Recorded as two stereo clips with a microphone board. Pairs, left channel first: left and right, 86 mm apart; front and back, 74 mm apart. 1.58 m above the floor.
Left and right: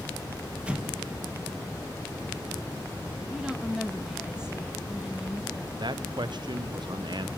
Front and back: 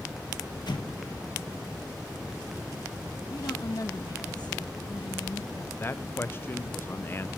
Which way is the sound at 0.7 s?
10° right.